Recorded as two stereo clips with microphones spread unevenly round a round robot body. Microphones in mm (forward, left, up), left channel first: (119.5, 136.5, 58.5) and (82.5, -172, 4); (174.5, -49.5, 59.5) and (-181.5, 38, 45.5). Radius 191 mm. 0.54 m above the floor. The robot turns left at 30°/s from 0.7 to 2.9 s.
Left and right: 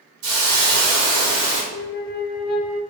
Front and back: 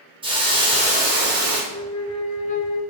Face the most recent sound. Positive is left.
turn(degrees=25)